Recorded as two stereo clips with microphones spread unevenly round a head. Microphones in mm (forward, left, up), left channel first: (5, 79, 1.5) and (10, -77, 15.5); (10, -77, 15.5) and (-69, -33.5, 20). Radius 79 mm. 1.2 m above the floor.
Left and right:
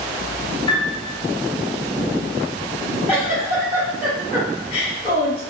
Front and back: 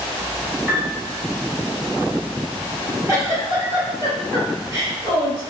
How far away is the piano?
About 0.8 m.